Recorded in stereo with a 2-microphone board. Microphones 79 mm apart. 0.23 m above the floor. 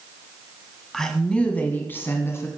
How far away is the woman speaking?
About 1.7 m.